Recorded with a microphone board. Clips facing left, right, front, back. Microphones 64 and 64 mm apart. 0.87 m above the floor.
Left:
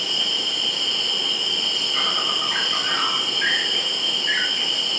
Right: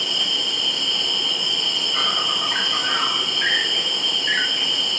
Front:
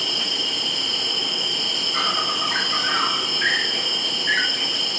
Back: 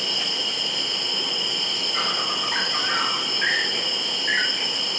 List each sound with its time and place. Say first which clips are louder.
0.0 s an insect: right 1 dB, front 1 dB; 5° right, 2 m